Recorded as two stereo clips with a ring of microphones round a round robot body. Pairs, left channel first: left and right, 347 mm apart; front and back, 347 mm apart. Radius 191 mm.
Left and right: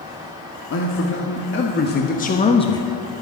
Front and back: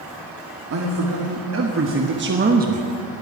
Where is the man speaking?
140° left, 2 m; by 2.9 s 155° left, 1.1 m.